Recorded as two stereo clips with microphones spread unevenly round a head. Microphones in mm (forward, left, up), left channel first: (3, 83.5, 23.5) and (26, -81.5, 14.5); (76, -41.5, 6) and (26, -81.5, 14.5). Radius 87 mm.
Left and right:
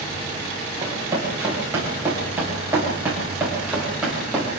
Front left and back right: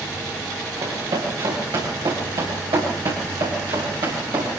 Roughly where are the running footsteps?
Behind right.